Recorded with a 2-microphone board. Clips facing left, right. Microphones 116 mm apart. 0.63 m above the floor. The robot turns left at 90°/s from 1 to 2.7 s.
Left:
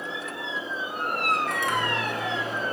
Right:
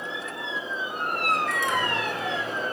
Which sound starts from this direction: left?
A microwave, at 1.5 s.